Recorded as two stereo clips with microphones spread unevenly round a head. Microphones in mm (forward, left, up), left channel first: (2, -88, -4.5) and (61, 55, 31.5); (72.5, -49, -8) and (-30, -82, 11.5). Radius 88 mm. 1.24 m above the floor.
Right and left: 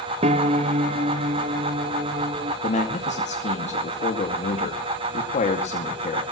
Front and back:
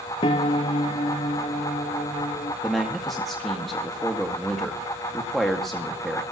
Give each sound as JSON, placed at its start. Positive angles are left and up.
{"t": 0.2, "sound": "a piano", "azimuth_deg": 65, "distance_m": 0.6}
{"t": 2.6, "sound": "a man speaking", "azimuth_deg": -70, "distance_m": 2.0}